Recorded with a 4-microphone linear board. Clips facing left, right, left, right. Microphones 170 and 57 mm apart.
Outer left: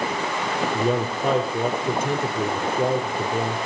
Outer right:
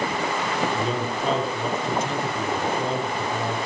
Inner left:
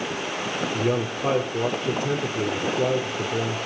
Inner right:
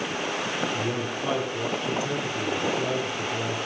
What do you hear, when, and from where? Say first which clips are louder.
0.7 s a man speaking: outer left 3 dB, inner left 4 dB; 55° left (ahead or behind), 3 m